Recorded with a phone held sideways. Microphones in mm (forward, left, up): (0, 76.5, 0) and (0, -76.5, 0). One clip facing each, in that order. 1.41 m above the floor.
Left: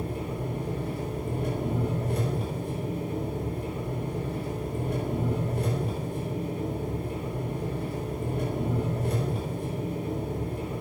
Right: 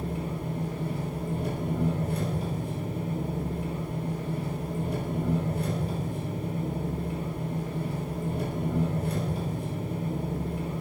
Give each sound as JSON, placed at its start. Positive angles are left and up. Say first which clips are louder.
{"t": 0.0, "sound": "an engine running", "louder": "left 1 dB", "side_deg": 80, "distance_m": 3.0}